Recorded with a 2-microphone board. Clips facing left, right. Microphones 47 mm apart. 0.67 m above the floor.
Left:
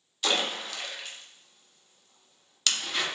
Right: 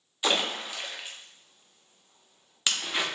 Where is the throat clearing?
I don't hear throat clearing.